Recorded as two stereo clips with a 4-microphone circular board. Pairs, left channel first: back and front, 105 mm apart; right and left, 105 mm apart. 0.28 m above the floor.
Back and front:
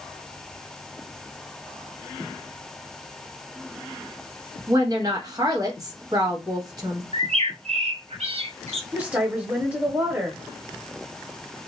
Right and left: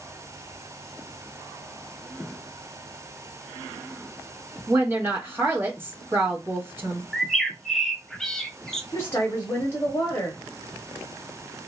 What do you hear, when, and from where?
4.7 s a woman speaking: 30° left, 1.2 m
7.1 s a bird: 5° right, 0.7 m
8.9 s a woman speaking: 65° right, 0.9 m